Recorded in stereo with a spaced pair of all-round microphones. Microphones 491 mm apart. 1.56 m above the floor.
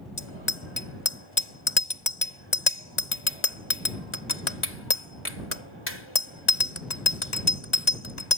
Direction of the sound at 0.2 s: 70° left (ahead or behind).